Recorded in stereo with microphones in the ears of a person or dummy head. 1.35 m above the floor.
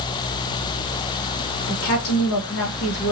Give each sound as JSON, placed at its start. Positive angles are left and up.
{"t": 1.7, "sound": "a woman speaking", "side_deg": 70, "distance_m": 1.2}